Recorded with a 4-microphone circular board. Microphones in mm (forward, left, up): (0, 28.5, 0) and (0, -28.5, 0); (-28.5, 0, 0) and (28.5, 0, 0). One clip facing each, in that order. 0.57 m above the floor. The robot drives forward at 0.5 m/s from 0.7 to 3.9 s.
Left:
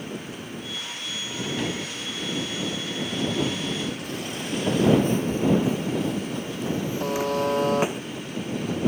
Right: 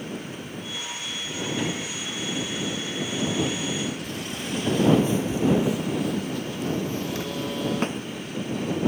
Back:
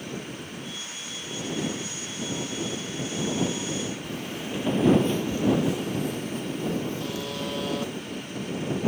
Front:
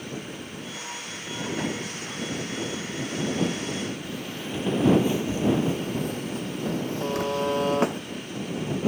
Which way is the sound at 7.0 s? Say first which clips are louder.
Left 5 dB, front 6 dB; 50° left.